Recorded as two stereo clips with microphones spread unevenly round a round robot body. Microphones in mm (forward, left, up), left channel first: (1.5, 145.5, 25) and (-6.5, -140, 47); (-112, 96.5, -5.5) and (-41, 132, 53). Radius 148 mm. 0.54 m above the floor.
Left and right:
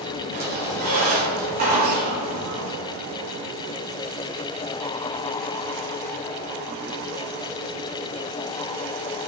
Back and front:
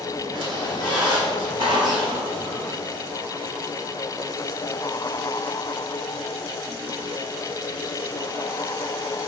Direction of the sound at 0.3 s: 30° right.